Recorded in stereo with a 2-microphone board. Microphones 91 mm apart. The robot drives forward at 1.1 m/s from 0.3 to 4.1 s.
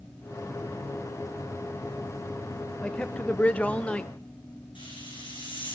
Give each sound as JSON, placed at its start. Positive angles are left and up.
{"t": 2.8, "sound": "a man speaking", "side_deg": 15, "distance_m": 1.1}
{"t": 4.8, "sound": "a hiss", "side_deg": 75, "distance_m": 8.5}